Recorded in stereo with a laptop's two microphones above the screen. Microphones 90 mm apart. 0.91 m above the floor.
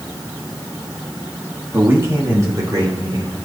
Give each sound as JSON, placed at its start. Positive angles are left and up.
{"t": 1.7, "sound": "a man speaking", "side_deg": -25, "distance_m": 1.6}